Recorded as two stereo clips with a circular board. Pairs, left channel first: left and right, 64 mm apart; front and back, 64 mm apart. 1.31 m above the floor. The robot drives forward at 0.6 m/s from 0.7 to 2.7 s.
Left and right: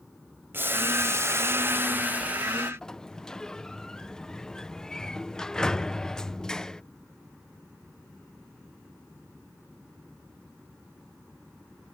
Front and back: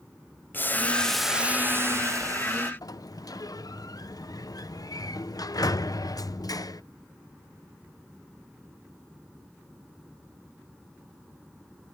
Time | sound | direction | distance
0.5 | boiling | 50° right | ?
2.8 | a sliding door | 10° left | ?